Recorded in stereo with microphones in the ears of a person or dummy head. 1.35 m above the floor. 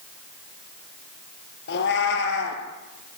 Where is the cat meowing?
60° left (ahead or behind), 4 m.